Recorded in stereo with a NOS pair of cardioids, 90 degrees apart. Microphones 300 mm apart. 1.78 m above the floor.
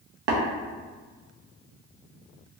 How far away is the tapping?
About 1.0 m.